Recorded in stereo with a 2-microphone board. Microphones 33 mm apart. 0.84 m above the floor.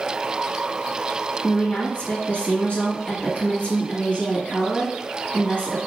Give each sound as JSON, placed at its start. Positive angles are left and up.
{"t": 1.4, "sound": "a woman speaking", "side_deg": 45, "distance_m": 1.7}